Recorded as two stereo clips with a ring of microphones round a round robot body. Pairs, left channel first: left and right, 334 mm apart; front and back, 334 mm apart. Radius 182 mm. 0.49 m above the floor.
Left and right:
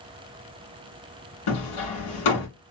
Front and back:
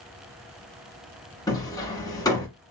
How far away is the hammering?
About 1.7 m.